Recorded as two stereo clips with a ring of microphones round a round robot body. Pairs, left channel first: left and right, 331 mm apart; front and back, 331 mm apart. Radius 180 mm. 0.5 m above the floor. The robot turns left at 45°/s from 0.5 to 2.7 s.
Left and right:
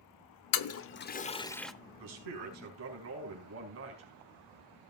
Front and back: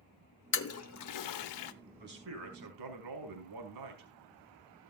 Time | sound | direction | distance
0.5 | a toilet flushing | 55° left | 1.0 m
2.0 | a man speaking | 115° right | 4.5 m